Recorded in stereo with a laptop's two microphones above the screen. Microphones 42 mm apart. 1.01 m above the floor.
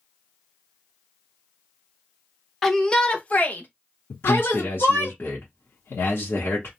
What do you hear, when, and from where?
2.6 s a shout: 5° left (ahead or behind), 0.8 m; by 5.1 s 75° left (ahead or behind), 1.5 m
4.1 s a man speaking: 55° left (ahead or behind), 1.1 m